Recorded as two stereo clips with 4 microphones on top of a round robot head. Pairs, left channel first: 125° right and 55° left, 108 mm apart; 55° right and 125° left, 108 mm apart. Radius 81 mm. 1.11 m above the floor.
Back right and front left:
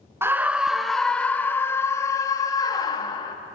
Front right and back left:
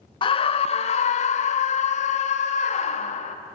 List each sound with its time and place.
0.2 s a scream: 15° right, 0.9 m; by 3.4 s 75° right, 2 m